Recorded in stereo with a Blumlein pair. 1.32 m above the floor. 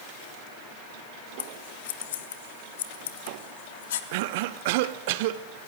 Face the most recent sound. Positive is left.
turn(degrees=-50)